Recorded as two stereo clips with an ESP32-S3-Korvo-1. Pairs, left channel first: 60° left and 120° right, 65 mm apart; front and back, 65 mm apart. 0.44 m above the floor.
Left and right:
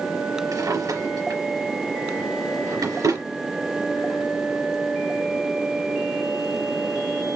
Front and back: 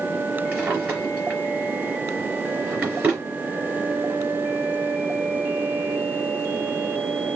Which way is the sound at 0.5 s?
115° right.